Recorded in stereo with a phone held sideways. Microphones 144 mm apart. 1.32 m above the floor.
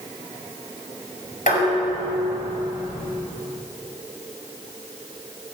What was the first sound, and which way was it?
Dishes clattering, 70° left (ahead or behind).